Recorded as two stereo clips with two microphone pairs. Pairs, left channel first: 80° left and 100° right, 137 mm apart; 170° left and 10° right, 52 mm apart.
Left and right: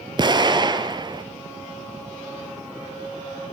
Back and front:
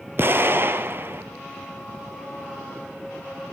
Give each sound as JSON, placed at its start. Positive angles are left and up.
{"t": 0.2, "sound": "an explosion", "azimuth_deg": -50, "distance_m": 0.9}